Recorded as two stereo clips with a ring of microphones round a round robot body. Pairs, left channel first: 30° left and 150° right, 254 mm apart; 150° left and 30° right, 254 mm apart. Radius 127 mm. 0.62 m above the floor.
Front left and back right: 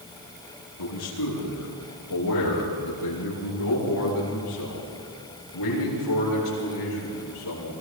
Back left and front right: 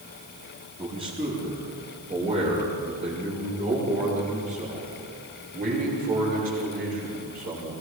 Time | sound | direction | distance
0.8 | a man speaking | 40° left | 9.5 m